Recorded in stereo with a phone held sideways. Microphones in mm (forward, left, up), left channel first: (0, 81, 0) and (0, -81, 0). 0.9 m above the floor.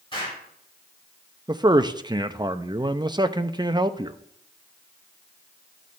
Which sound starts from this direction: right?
A man speaking, at 1.5 s.